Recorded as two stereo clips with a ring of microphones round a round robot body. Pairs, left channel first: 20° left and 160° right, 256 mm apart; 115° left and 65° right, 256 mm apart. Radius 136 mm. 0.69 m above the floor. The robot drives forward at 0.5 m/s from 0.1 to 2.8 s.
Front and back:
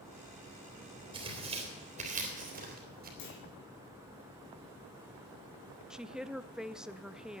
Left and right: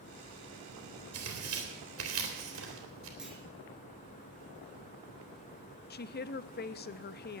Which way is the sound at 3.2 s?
20° left.